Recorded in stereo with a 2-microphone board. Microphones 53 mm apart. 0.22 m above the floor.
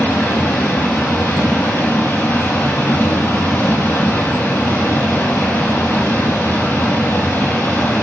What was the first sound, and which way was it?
Running water, 70° left (ahead or behind).